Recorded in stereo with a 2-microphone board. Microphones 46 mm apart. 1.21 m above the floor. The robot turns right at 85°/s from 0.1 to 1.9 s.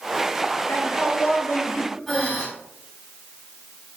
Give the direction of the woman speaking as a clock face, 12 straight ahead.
10 o'clock.